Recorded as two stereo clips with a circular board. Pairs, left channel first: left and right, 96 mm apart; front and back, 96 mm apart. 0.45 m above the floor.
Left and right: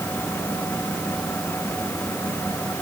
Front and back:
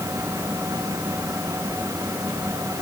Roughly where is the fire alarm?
I don't hear a fire alarm.